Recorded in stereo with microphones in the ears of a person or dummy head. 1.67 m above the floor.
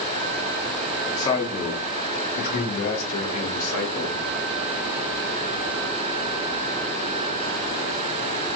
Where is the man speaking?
20° left (ahead or behind), 0.8 m; by 4.1 s 80° left, 2 m.